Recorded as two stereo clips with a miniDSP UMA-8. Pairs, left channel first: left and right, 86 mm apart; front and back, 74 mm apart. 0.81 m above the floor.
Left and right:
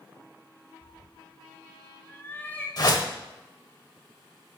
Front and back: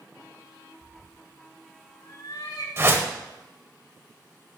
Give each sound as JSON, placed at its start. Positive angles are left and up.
{"t": 0.8, "sound": "a cat meowing", "azimuth_deg": 125, "distance_m": 1.2}
{"t": 2.8, "sound": "a whoosh", "azimuth_deg": 125, "distance_m": 1.1}